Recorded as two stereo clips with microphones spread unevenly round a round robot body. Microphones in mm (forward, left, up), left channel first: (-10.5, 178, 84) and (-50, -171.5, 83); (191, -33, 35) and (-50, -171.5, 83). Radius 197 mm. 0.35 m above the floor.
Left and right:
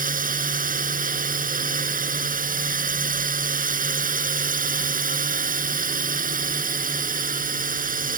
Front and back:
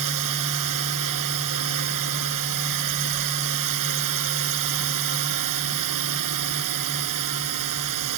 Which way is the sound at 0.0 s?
165° right.